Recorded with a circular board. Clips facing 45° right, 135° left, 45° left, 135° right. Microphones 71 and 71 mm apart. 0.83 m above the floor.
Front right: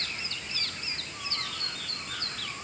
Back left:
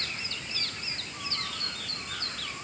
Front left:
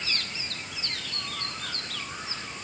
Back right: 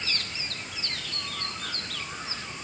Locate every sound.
Only background noise.